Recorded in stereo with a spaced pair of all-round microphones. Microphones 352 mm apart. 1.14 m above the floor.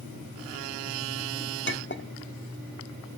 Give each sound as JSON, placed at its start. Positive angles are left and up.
{"t": 1.7, "sound": "a clink", "side_deg": 35, "distance_m": 1.3}